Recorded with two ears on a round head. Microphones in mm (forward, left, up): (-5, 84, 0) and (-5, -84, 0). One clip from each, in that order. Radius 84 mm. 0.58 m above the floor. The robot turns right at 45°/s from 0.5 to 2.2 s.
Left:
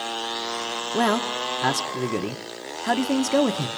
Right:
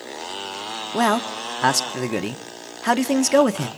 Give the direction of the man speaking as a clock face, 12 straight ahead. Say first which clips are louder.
Right 2 dB; 5 o'clock.